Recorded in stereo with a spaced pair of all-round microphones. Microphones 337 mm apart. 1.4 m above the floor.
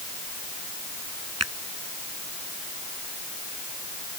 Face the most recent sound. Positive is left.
turn(degrees=-50)  # may be behind; listen again after turning